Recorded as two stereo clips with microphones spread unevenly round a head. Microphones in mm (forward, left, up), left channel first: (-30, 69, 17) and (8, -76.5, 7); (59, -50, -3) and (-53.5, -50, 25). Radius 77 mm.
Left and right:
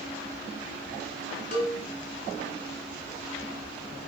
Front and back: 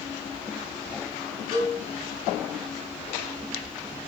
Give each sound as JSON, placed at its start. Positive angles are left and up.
{"t": 1.5, "sound": "a cowbell", "azimuth_deg": 130, "distance_m": 1.1}